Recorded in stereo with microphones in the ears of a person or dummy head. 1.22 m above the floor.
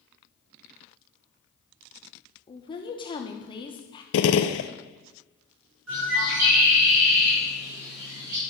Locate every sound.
2.5 s a woman speaking: 25° left (ahead or behind), 1.1 m
4.1 s a gunshot: 65° left (ahead or behind), 0.6 m
5.9 s a bird: 85° right, 5 m